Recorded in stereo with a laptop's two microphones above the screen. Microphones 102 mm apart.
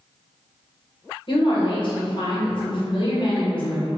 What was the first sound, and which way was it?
A woman speaking, 55° left (ahead or behind).